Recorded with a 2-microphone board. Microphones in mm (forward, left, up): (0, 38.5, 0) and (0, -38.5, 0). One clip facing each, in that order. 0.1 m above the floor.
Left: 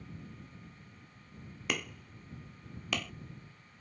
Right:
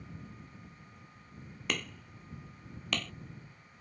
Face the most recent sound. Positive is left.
turn(degrees=5)  # may be behind; listen again after turning